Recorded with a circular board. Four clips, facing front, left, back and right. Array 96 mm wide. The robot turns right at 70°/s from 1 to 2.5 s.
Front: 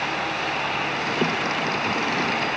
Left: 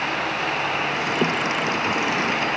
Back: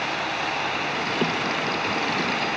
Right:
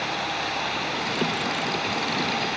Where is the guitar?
I don't hear a guitar.